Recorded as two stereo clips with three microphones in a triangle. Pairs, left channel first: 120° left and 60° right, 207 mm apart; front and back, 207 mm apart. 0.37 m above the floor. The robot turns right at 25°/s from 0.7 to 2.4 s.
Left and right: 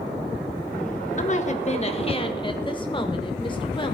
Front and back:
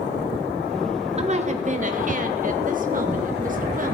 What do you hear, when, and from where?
1.2 s a woman speaking: 140° left, 1.3 m; by 3.9 s 175° left, 1.3 m